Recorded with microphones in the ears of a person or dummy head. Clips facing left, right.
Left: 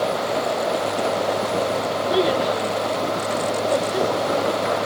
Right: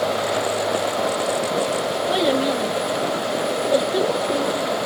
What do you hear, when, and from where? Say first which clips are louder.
2.1 s a child speaking: even; 60° right (ahead or behind), 0.9 m; by 4.8 s 5° right (ahead or behind), 0.9 m